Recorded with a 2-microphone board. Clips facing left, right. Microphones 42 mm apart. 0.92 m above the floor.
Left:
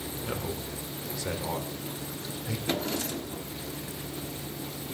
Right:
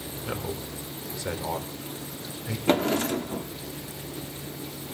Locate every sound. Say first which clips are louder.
0.2 s a man speaking: right 2 dB; 15° right (ahead or behind), 3 m
2.7 s a drawer: right 9 dB; 50° right (ahead or behind), 1.1 m